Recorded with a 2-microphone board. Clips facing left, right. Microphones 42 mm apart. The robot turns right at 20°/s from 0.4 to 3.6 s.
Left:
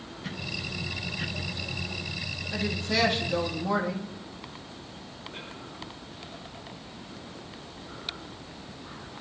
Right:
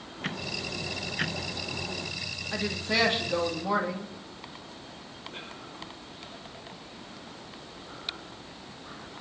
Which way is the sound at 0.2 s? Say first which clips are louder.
Right 2 dB; 115° right.